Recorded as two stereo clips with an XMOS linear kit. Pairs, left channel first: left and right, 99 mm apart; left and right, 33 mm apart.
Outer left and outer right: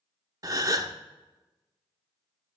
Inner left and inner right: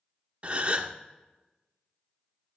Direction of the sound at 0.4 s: 40° right (ahead or behind).